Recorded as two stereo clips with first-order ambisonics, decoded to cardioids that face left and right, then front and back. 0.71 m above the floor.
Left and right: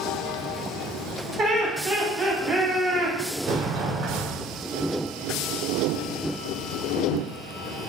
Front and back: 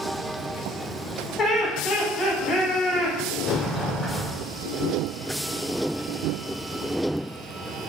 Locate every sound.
1.4 s laughter: straight ahead, 1.2 m
3.5 s a sliding door: 65° right, 0.6 m